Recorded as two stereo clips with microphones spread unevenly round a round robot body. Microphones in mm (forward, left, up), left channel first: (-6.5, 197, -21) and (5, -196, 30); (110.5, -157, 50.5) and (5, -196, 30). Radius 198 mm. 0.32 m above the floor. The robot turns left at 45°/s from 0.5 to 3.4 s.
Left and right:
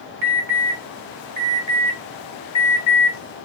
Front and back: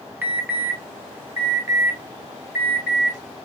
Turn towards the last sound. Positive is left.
turn(degrees=115)